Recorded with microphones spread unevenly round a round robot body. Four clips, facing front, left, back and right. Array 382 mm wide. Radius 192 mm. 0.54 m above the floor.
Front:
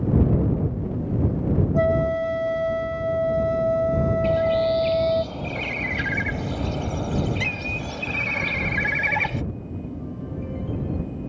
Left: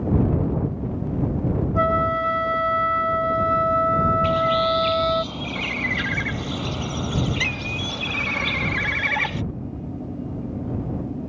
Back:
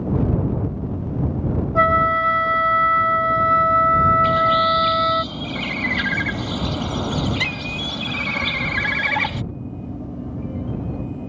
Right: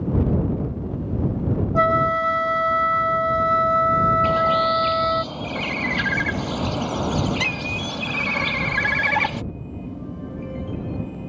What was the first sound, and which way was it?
A flute, 145° right.